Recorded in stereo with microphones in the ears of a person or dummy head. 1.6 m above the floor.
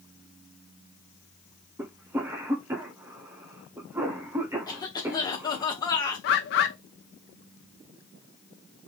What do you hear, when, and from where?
1.8 s a cough: 20° right (ahead or behind), 0.8 m
4.7 s a cough: 20° left (ahead or behind), 1.7 m
6.2 s a bird: 55° left (ahead or behind), 1.0 m